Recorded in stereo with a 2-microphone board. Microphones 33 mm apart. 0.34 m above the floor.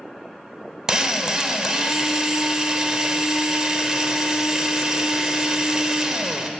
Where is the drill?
20° right (ahead or behind), 0.7 m.